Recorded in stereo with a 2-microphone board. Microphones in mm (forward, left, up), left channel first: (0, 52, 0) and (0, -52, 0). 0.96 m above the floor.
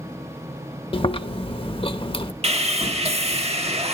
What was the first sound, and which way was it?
Chewing, 60° left (ahead or behind).